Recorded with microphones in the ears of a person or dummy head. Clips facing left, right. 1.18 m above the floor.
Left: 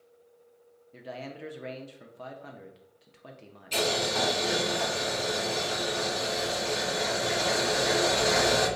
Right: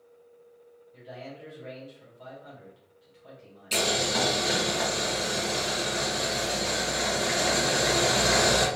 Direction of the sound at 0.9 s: 60° left (ahead or behind).